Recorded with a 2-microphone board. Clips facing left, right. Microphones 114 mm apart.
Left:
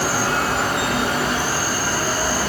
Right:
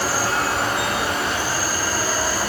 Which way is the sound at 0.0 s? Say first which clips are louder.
Left 1 dB; 65° left (ahead or behind).